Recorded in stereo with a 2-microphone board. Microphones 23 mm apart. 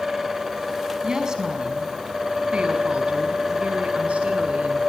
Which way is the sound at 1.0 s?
25° right (ahead or behind).